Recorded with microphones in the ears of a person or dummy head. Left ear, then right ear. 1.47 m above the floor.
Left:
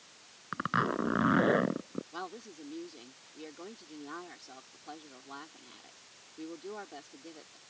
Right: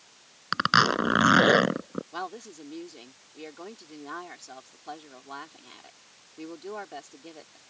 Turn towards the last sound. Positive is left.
turn(degrees=-25)  # may be behind; listen again after turning